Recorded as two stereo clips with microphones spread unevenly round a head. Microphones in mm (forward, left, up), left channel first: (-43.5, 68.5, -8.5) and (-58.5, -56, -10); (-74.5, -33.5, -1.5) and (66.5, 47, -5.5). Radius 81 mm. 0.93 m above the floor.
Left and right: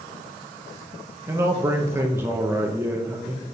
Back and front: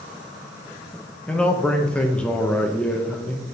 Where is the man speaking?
75° right, 0.7 m.